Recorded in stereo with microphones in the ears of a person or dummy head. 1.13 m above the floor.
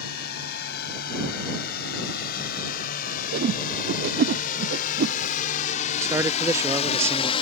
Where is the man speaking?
15° right (ahead or behind).